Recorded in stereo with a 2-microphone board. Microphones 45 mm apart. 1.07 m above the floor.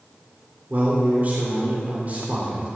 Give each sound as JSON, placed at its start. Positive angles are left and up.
{"t": 0.7, "sound": "a man speaking", "side_deg": -40, "distance_m": 3.0}